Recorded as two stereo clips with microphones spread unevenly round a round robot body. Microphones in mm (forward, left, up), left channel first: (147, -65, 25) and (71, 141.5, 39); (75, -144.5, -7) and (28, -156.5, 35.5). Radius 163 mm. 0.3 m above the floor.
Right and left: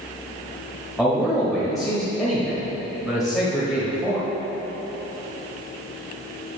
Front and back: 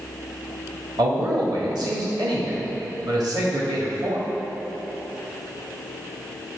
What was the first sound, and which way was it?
A man speaking, 155° right.